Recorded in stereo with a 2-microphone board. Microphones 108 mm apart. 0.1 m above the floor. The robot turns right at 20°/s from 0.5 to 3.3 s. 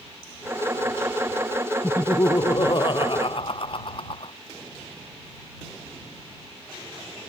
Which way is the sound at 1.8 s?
25° left (ahead or behind).